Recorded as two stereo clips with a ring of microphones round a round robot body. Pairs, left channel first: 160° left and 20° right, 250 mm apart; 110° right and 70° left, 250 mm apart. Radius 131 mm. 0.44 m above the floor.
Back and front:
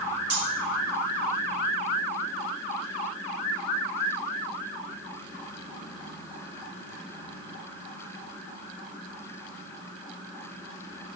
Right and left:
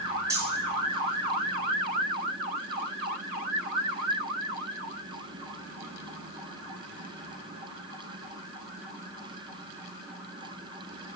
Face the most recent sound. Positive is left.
turn(degrees=-10)